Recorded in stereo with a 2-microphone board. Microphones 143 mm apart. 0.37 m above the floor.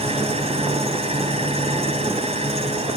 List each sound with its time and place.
0.0 s an engine running: 50° right (ahead or behind), 2.5 m